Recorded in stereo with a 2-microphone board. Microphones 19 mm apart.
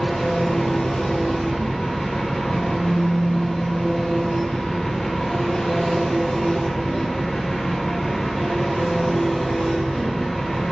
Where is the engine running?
70° left (ahead or behind), 1.2 m.